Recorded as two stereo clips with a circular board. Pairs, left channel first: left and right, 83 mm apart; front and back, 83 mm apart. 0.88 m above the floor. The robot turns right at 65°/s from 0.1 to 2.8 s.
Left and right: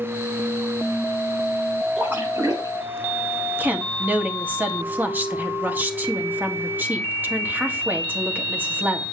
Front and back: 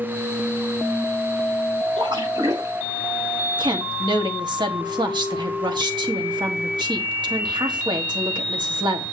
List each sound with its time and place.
2.0 s a splash: 165° right, 7 m; by 2.7 s 115° right, 7 m
3.6 s a woman speaking: 155° right, 1.6 m